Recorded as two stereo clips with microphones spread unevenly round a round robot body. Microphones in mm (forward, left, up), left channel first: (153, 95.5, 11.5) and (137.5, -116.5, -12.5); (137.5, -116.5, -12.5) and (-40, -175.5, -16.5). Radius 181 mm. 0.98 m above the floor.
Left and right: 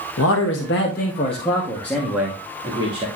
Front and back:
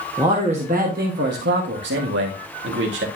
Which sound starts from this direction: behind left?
A man speaking, at 0.2 s.